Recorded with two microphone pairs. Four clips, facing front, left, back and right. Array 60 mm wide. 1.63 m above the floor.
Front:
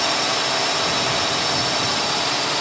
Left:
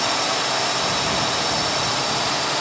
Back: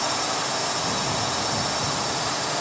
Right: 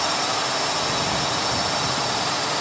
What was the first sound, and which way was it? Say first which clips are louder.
A drone: left 1 dB, front 4 dB; 20° left.